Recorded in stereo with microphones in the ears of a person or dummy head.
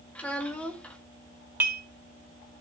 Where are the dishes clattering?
10° right (ahead or behind), 1.1 m.